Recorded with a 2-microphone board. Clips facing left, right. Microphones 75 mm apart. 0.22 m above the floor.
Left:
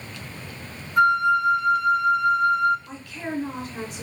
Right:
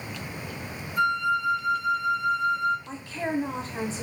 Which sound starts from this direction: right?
A woman speaking, at 2.9 s.